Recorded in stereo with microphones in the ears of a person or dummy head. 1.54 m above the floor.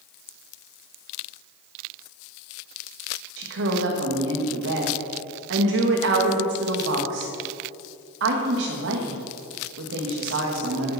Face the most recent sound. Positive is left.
turn(degrees=-75)  # may be behind; listen again after turning